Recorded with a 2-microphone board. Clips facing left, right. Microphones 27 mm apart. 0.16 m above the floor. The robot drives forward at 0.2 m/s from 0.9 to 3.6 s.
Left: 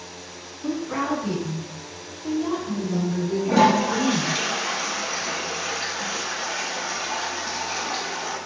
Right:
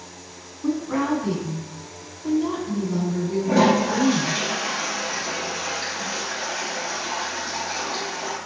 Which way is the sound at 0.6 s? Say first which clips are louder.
Right 2 dB; 15° right (ahead or behind).